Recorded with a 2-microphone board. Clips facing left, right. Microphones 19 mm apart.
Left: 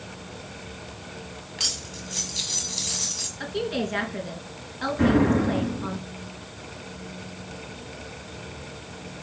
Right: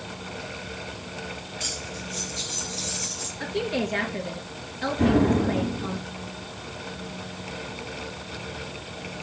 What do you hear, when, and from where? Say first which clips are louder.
1.6 s cutlery clinking: left 5 dB; 65° left (ahead or behind), 1.5 m
3.4 s a woman speaking: right 2 dB; 35° left (ahead or behind), 3 m
5.0 s an explosion: left 1 dB; 70° left (ahead or behind), 4.5 m